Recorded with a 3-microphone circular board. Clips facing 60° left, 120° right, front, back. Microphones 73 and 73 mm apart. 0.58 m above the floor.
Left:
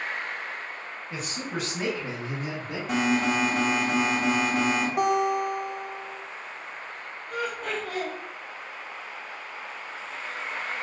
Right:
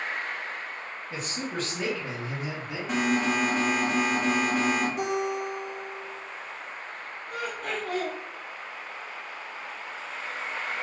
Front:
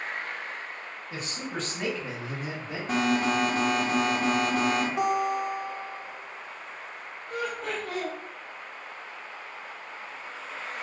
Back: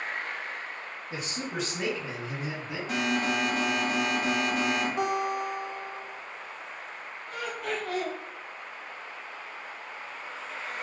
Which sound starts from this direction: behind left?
A man speaking, at 1.1 s.